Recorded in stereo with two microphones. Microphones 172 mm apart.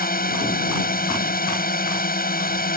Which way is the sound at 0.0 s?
65° left (ahead or behind).